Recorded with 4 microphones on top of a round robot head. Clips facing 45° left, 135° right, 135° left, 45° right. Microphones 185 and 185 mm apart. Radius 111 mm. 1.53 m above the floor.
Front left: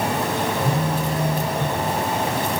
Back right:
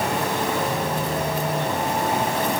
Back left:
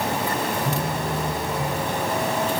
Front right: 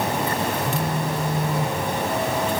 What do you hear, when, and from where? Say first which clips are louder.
0.6 s a phone buzzing: front left 2 dB, front right 1 dB; 70° left, 9 m